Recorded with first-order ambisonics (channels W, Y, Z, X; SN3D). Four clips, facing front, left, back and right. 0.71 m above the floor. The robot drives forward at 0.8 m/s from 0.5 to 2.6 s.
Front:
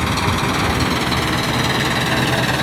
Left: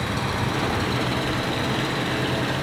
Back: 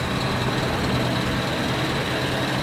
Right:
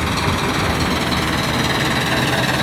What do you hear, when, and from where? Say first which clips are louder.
0.0 s an engine running: right 6 dB, front 6 dB; 35° right, 5 m; by 2.6 s 45° right, 3.5 m